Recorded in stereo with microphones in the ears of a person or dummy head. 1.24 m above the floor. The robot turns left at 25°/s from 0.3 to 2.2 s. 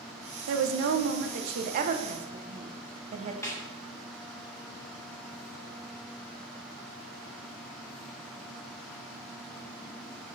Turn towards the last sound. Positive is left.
turn(degrees=15)  # may be behind; listen again after turning